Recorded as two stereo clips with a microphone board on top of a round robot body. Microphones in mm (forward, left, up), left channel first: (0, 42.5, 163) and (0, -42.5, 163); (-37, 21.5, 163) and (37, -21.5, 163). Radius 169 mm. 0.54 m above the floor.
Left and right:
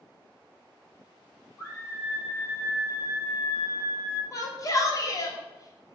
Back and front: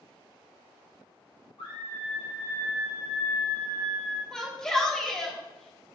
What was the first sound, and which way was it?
A scream, 145° left.